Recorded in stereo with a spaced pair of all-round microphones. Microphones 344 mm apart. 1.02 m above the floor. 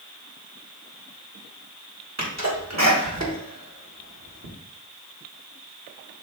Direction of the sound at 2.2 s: 50° right (ahead or behind).